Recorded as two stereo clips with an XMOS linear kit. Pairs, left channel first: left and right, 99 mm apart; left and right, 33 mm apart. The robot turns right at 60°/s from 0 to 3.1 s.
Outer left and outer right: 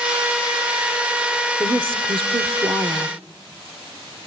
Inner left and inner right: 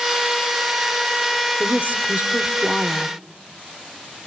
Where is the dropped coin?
No dropped coin in this recording.